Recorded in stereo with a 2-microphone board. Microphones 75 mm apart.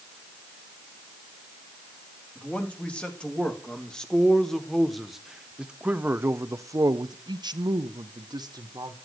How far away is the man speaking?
About 2.5 m.